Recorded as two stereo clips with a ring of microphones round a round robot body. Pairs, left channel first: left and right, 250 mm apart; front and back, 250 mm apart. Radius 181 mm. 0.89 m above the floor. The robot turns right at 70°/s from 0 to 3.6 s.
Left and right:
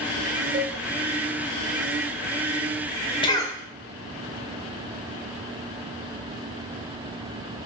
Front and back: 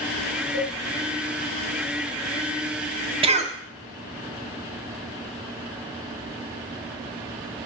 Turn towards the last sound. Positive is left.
turn(degrees=165)